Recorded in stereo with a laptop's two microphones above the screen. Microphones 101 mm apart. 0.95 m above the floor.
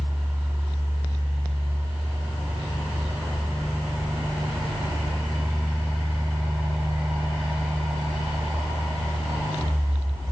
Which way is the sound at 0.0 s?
5° right (ahead or behind).